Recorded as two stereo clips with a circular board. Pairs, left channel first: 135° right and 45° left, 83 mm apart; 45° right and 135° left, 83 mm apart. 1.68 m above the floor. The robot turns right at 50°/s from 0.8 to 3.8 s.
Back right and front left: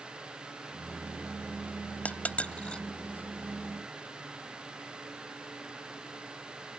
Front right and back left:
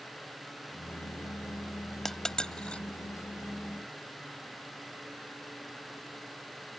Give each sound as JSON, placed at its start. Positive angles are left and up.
{"t": 2.0, "sound": "a dropped coin", "azimuth_deg": -125}